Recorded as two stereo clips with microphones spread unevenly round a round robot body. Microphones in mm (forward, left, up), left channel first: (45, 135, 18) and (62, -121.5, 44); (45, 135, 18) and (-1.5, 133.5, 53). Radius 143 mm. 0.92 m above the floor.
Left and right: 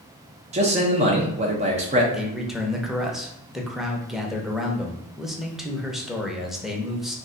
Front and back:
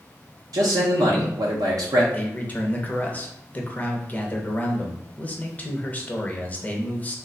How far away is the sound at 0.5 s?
About 0.6 m.